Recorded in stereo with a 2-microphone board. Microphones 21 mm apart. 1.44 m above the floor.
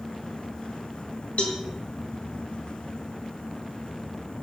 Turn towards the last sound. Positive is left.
turn(degrees=70)  # may be behind; listen again after turning